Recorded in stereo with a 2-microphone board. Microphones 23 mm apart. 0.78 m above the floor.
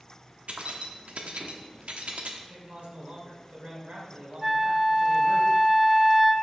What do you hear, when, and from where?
0.5 s keys jangling: 65° right (ahead or behind), 1.0 m
2.5 s a man speaking: 70° right (ahead or behind), 3 m
4.4 s a flute: 15° right (ahead or behind), 1.1 m